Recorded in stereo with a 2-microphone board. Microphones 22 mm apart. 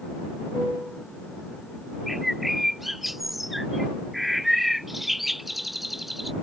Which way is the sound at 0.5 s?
30° right (ahead or behind).